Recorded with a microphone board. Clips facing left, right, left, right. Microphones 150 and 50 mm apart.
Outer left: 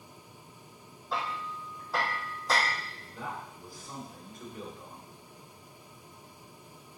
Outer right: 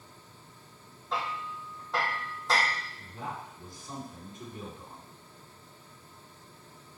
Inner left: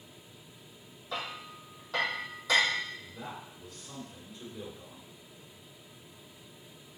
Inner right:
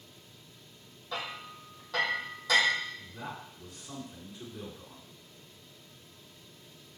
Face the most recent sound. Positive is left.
turn(degrees=-25)  # may be behind; listen again after turning